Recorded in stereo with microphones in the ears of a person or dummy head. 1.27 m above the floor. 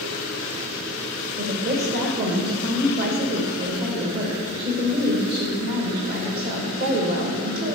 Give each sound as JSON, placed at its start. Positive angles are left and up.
{"t": 1.4, "sound": "a woman speaking", "side_deg": -45, "distance_m": 1.3}